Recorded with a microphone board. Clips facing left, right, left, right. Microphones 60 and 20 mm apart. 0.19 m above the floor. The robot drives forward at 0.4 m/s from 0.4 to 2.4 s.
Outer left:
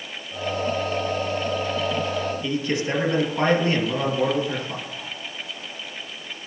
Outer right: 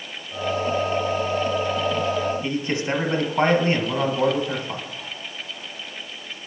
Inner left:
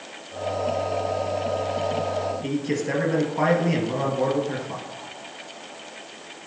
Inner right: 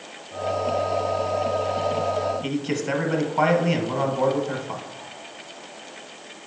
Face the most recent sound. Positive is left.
turn(degrees=-35)  # may be behind; listen again after turning